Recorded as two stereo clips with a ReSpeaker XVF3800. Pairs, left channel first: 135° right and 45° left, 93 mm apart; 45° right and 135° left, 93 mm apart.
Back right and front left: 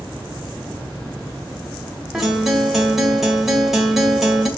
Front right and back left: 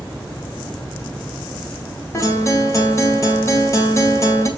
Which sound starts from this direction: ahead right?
A guitar, at 2.1 s.